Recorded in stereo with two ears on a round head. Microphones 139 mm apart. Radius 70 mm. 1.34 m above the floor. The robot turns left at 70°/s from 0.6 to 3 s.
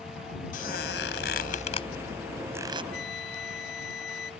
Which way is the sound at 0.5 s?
60° left (ahead or behind).